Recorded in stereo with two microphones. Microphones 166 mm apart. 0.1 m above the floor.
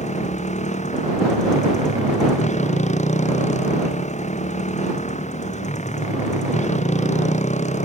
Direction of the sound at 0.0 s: 45° left (ahead or behind).